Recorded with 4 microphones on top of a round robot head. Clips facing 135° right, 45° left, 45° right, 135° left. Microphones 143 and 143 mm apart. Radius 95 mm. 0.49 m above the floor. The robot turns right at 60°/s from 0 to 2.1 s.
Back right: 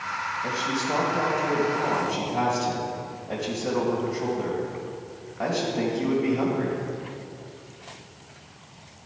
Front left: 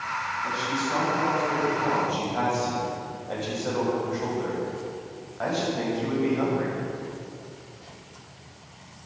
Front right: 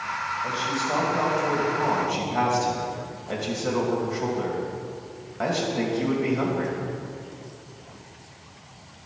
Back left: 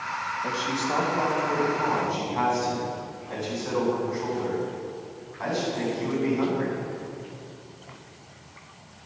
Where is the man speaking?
155° right, 2.5 m; by 6.8 s 55° right, 2.5 m.